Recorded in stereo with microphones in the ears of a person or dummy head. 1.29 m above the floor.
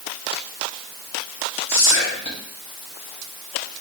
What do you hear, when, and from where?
1.7 s whispering: 55° left (ahead or behind), 1.0 m